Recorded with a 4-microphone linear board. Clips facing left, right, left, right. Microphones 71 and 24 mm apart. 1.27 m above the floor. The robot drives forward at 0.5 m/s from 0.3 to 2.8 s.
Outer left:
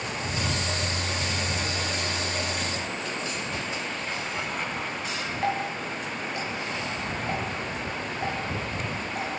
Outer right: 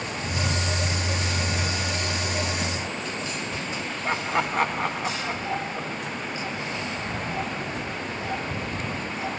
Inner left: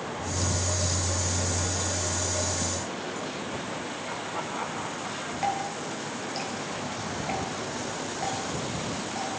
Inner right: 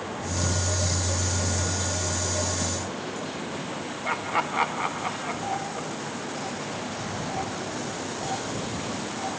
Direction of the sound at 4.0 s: 75° right (ahead or behind).